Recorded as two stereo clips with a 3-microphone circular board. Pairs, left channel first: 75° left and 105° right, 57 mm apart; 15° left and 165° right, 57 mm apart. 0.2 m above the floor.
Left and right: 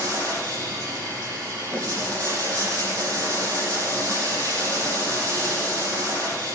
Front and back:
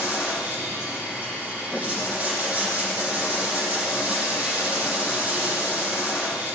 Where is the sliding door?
I don't hear a sliding door.